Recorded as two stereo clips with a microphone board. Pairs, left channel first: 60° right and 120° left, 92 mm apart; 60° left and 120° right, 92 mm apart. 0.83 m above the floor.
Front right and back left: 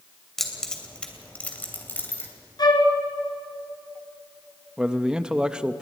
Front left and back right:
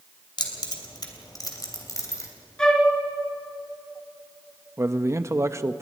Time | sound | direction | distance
0.4 | keys jangling | 25° left | 2.5 m
2.6 | a flute | 20° right | 2.5 m
4.8 | a man speaking | 165° right | 0.8 m